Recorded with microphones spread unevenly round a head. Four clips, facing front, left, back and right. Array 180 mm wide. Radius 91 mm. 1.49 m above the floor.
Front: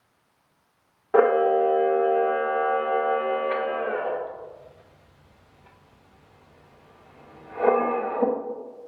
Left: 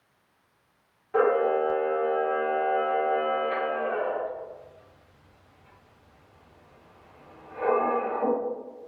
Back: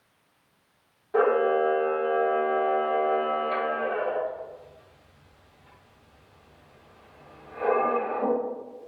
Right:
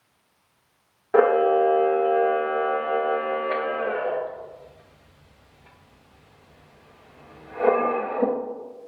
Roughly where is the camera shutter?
Ahead right.